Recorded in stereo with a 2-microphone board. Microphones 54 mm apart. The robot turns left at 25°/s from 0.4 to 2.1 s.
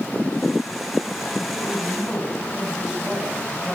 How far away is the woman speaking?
About 8.5 m.